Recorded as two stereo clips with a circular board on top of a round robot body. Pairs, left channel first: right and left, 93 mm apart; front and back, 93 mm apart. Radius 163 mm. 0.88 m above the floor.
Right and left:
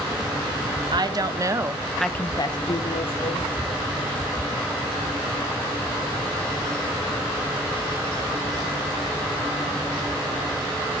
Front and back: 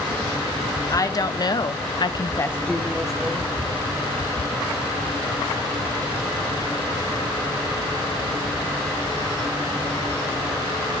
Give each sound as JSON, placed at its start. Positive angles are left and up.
{"t": 0.9, "sound": "a woman speaking", "azimuth_deg": 50, "distance_m": 2.0}